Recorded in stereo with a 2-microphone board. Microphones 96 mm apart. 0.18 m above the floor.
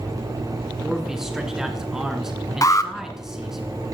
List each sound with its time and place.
0.8 s a man speaking: 5° right (ahead or behind), 1.9 m
2.6 s an alarm: 35° left (ahead or behind), 0.9 m